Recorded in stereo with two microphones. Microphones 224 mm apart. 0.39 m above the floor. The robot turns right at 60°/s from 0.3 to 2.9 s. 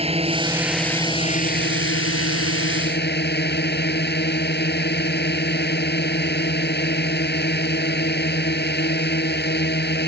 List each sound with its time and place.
0.0 s a drone: 30° right; by 10.1 s 130° left